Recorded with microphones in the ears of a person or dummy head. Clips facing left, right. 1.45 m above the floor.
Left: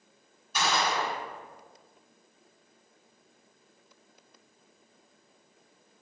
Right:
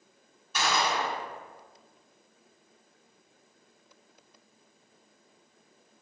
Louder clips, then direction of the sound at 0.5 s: Even; 55° right (ahead or behind).